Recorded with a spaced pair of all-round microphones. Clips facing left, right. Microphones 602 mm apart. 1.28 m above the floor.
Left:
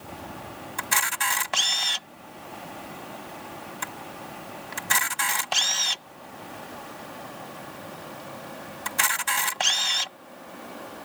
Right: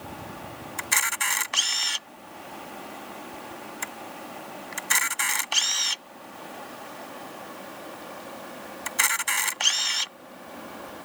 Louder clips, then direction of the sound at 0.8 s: Left 2 dB; 75° left (ahead or behind).